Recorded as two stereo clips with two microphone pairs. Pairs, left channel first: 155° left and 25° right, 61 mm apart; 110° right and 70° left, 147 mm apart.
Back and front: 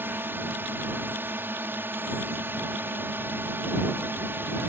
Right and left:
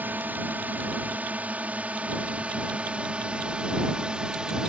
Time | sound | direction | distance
0.0 | a drone | 5° right | ?